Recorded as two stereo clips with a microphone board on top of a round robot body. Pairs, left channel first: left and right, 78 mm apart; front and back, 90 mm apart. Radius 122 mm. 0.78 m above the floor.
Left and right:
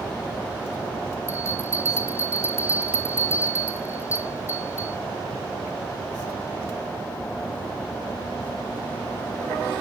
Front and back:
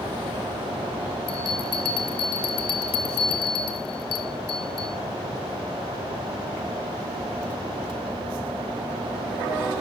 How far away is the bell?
About 0.8 m.